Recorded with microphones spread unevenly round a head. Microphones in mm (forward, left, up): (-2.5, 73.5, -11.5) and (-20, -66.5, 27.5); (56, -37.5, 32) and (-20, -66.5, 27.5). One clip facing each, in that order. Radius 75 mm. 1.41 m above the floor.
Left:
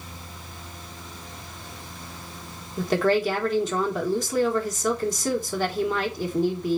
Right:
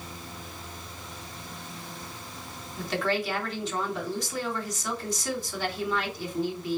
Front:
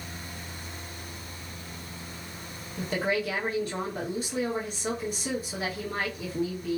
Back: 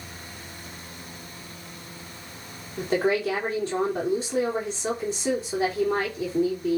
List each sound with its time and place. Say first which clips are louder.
2.8 s a woman speaking: left 7 dB, back 5 dB; 130° left, 3.5 m